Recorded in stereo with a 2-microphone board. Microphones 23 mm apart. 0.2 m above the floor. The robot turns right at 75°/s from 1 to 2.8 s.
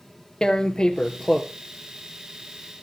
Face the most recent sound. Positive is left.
turn(degrees=-90)